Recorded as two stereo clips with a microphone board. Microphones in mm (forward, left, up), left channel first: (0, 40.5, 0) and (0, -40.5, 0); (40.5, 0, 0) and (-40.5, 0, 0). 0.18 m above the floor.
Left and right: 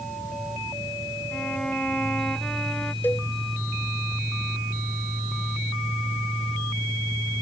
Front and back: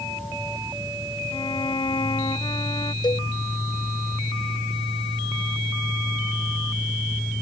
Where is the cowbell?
25° left.